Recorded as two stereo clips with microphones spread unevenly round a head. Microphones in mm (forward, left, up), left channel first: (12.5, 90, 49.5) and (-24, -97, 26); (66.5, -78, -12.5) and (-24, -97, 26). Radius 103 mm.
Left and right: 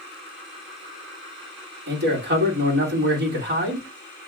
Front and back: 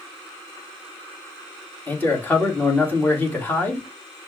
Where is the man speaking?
60° right, 2 m.